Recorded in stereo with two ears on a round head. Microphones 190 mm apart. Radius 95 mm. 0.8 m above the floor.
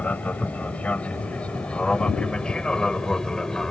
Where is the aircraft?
5° left (ahead or behind).